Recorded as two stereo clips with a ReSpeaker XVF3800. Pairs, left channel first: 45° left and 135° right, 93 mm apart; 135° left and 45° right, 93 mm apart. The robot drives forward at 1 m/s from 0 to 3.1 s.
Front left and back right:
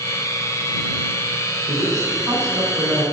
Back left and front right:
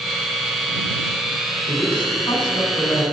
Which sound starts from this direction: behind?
A woman speaking, at 1.7 s.